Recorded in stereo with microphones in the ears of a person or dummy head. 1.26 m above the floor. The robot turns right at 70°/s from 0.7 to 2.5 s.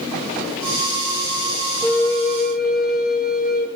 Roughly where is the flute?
Ahead.